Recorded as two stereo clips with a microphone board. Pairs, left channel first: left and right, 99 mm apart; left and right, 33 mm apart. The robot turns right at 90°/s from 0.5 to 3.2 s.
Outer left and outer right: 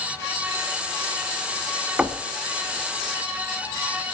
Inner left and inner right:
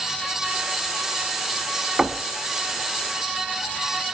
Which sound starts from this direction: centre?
Knocking, at 2.0 s.